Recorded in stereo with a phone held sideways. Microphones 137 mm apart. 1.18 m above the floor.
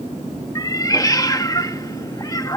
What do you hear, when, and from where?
0.6 s a cat meowing: 25° left (ahead or behind)